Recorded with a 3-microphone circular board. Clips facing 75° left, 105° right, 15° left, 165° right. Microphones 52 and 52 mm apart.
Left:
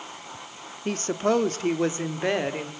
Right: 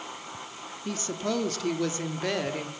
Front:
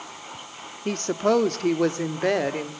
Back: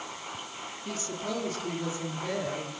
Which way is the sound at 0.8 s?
40° left.